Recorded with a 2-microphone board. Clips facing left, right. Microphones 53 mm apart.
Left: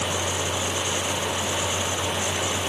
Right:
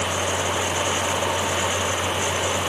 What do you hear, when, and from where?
Only background noise.